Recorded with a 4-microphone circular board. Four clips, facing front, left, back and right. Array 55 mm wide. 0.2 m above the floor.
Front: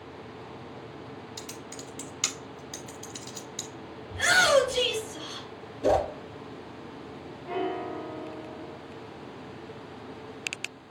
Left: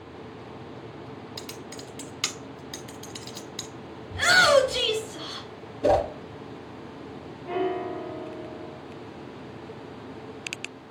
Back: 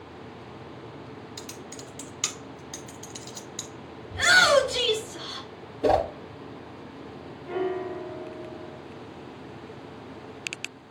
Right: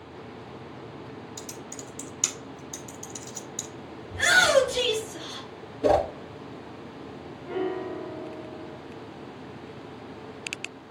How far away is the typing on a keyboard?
About 0.6 m.